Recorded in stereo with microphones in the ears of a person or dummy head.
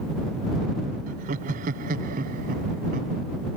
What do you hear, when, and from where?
1.1 s laughter: 40° right (ahead or behind); by 3.2 s 45° right (ahead or behind)